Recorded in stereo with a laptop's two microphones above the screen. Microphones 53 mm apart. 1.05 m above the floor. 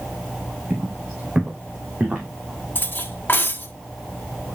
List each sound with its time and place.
0.7 s footsteps: 25° right (ahead or behind), 3.5 m; by 2.3 s 30° right (ahead or behind), 2.5 m
2.8 s cutlery clinking: 40° left (ahead or behind), 1.1 m